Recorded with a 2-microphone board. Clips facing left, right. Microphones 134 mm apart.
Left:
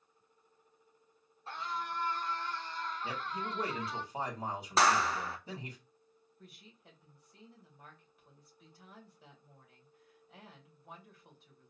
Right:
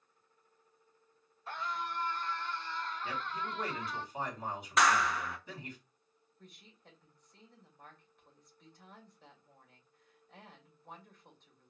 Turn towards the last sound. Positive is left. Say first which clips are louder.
# left 1 dB
turn(degrees=5)  # may be behind; listen again after turning